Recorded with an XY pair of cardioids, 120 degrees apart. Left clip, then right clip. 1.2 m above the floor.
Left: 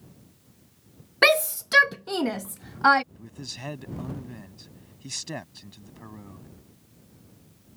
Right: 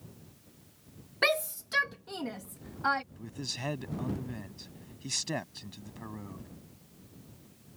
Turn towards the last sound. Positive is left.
turn(degrees=-5)